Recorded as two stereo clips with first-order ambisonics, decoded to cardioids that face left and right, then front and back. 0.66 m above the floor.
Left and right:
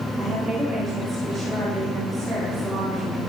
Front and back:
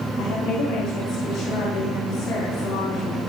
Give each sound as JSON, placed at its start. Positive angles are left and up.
{"t": 0.2, "sound": "a woman speaking", "azimuth_deg": -25, "distance_m": 7.5}